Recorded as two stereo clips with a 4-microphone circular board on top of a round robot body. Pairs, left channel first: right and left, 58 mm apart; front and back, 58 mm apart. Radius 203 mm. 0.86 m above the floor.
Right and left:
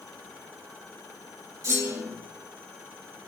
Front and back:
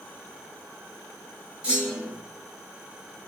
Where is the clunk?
110° left, 6 m.